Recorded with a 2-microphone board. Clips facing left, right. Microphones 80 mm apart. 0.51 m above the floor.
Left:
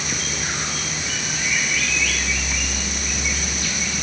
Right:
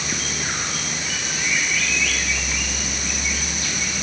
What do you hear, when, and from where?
Only background noise.